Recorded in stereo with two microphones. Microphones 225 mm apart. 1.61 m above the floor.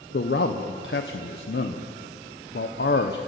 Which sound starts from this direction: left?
A man speaking, at 0.1 s.